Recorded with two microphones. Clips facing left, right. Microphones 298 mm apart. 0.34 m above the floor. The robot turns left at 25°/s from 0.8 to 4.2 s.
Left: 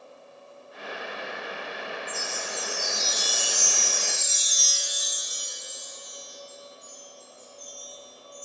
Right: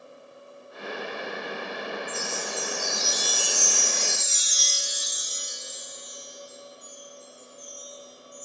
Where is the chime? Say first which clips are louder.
Right 3 dB; 30° left, 0.8 m; by 8.4 s 25° right, 0.8 m.